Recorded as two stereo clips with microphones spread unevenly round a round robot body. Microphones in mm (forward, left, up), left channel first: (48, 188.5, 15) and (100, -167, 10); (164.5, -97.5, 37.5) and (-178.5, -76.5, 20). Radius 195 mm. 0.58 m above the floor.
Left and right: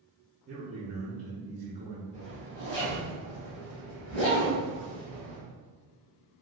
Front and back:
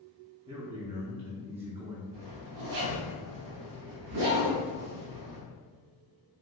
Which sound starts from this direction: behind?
A zipper, at 2.1 s.